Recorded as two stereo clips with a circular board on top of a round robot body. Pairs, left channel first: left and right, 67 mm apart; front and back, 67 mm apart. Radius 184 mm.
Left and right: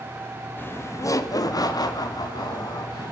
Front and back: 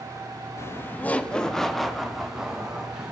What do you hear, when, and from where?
0.6 s laughter: 35° left, 0.8 m; by 3.1 s 100° left, 2.5 m